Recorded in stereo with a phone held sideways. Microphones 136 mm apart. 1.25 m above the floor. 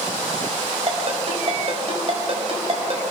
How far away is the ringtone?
About 5.5 m.